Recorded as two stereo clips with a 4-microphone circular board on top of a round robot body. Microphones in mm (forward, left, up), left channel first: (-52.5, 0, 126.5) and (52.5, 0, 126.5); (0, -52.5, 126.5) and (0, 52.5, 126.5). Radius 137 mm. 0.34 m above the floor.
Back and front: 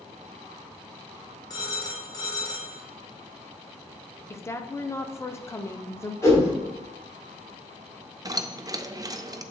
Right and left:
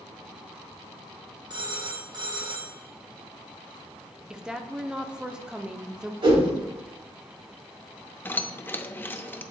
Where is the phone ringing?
130° left, 1.9 m.